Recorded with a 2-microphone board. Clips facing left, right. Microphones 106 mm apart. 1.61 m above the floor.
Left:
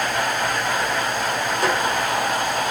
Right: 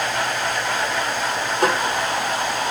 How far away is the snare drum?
About 1.9 m.